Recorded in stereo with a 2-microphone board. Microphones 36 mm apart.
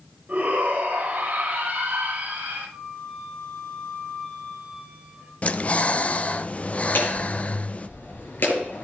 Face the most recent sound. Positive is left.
turn(degrees=70)  # may be behind; listen again after turning